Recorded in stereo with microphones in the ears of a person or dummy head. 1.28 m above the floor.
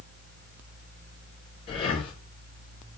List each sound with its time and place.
1.7 s breathing: 35° left (ahead or behind), 1.1 m